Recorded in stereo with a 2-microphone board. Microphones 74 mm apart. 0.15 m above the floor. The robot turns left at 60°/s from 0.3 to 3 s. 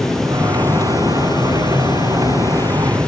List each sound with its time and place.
0.0 s running water: 175° left, 1.0 m; by 3.1 s 10° left, 1.0 m